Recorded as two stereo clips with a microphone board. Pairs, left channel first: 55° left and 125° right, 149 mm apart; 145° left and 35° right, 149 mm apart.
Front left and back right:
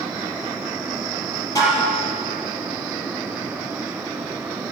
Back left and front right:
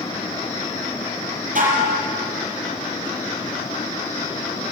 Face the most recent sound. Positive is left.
turn(degrees=-10)